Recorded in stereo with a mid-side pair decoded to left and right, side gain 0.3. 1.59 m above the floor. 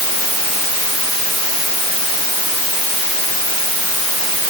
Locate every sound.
Only background noise.